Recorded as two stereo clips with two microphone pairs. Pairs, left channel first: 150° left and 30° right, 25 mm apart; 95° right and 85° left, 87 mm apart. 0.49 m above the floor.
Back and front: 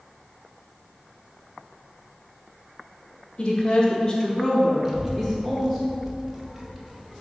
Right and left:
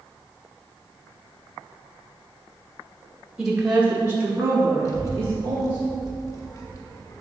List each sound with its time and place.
3.4 s a woman speaking: 165° left, 1.1 m; by 5.8 s 30° left, 1.5 m
4.8 s a child speaking: 95° right, 1.0 m